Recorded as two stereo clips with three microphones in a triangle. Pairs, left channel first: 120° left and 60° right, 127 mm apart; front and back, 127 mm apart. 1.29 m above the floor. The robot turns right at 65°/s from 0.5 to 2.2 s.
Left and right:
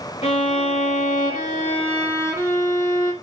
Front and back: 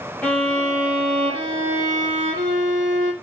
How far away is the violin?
About 2.5 m.